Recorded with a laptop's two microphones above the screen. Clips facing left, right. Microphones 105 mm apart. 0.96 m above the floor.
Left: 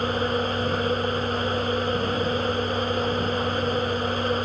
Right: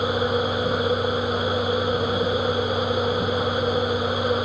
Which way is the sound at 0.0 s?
10° right (ahead or behind).